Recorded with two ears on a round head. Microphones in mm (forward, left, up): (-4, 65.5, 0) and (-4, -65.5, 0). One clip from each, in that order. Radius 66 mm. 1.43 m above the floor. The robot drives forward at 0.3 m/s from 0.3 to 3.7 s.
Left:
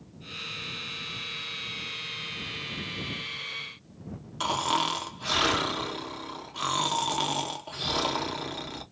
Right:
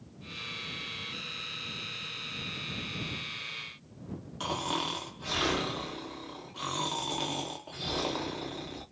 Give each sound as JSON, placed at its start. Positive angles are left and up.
{"t": 4.4, "sound": "snoring", "side_deg": 35, "distance_m": 0.7}